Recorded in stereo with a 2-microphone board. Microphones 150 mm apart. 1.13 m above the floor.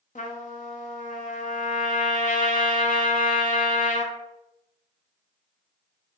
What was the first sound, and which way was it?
A trumpet, 60° left (ahead or behind).